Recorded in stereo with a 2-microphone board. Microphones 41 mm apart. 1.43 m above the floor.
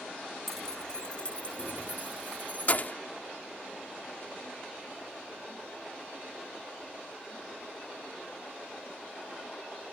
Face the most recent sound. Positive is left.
turn(degrees=45)  # may be behind; listen again after turning